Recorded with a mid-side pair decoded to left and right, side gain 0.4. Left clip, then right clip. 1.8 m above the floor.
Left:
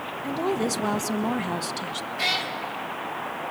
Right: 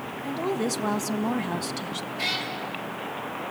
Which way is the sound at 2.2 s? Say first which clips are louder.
Left 3 dB; 45° left.